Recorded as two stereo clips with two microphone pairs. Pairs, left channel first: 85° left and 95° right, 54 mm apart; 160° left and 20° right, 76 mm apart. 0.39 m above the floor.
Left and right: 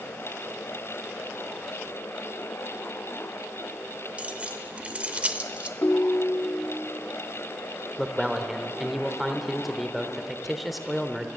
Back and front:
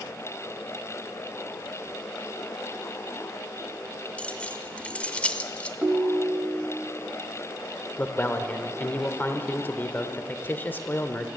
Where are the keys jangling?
135° right, 0.8 m.